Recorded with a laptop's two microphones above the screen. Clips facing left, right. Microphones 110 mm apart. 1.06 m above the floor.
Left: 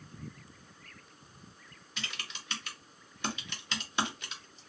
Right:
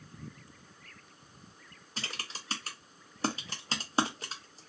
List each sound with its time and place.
2.0 s typing on a keyboard: 35° right (ahead or behind), 0.6 m